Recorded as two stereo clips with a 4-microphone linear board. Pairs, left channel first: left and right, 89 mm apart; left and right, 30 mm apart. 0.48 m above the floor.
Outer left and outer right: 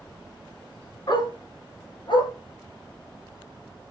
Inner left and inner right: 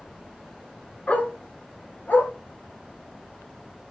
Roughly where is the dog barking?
Left.